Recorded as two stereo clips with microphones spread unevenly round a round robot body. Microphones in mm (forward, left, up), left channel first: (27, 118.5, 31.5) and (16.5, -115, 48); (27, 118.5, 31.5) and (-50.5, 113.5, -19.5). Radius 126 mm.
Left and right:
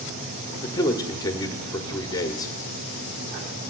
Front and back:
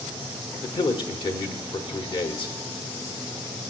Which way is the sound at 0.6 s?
35° left.